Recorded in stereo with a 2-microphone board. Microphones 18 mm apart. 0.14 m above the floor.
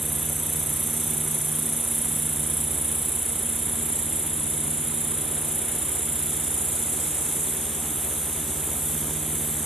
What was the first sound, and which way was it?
An insect, centre (ahead or behind).